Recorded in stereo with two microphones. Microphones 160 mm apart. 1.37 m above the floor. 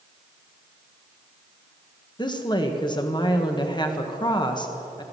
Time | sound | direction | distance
2.2 | a woman speaking | 30° left (ahead or behind) | 1.3 m